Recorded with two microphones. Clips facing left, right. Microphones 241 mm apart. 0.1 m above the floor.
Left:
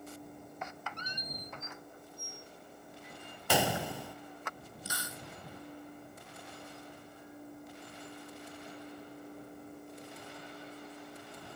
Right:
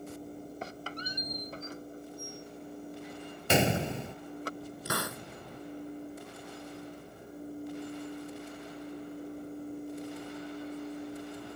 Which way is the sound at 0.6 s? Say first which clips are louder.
Right 5 dB; 35° right (ahead or behind).